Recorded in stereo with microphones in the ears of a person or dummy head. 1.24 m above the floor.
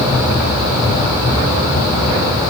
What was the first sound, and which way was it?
Only background noise.